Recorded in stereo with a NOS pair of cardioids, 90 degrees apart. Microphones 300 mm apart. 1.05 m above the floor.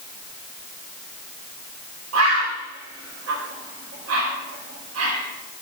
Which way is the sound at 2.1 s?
55° right.